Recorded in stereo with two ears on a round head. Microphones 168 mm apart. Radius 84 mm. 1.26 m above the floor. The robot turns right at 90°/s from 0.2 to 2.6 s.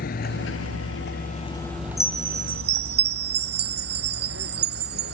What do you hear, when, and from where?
0.0 s a vehicle: 50° left (ahead or behind); by 5.1 s 65° right (ahead or behind)
2.0 s a chime: straight behind; by 5.1 s 120° right